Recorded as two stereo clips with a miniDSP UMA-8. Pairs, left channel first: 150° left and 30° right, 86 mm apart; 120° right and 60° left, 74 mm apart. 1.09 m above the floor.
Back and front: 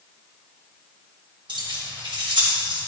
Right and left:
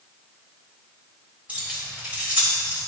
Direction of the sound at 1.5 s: 10° right.